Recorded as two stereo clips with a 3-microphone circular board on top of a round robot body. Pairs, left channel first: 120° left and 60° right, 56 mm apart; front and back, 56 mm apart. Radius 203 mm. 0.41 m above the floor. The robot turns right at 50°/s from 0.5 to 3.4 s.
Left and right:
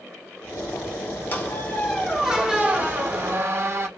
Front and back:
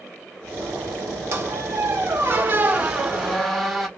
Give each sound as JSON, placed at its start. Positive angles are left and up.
{"t": 1.3, "sound": "a squeak", "azimuth_deg": 170, "distance_m": 1.1}